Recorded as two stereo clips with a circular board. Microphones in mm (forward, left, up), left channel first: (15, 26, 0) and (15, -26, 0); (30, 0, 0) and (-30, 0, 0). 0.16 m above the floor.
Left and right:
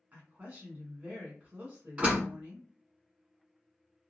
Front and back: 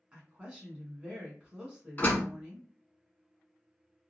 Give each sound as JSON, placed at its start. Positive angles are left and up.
{"t": 0.1, "sound": "a woman speaking", "azimuth_deg": -120, "distance_m": 1.2}
{"t": 2.0, "sound": "a door slam", "azimuth_deg": -40, "distance_m": 1.2}